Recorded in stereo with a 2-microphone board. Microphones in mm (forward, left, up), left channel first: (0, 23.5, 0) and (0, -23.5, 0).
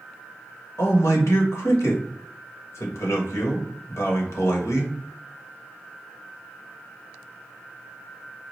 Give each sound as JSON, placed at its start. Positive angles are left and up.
{"t": 0.8, "sound": "a man speaking", "side_deg": 75, "distance_m": 1.2}